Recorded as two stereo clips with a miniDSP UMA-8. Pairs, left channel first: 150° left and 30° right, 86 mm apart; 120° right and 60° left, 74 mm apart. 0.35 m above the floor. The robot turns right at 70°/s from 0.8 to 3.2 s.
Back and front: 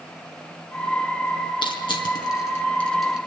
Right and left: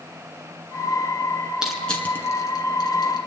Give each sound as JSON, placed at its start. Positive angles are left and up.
{"t": 1.6, "sound": "crushing", "azimuth_deg": 140, "distance_m": 2.0}